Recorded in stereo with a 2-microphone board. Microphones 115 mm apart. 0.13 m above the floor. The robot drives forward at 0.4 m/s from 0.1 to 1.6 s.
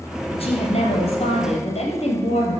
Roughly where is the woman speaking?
Left.